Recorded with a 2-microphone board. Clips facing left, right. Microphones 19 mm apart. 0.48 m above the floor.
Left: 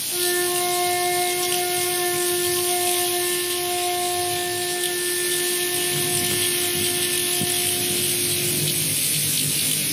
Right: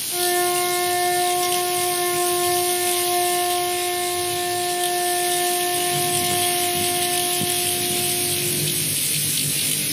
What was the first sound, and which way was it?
A flute, 25° right (ahead or behind).